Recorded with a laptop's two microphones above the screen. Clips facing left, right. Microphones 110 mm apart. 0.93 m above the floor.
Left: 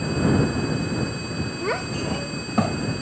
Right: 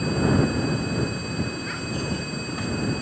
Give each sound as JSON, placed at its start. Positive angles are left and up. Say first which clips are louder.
{"t": 1.6, "sound": "a child speaking", "louder": "left 4 dB", "side_deg": 80}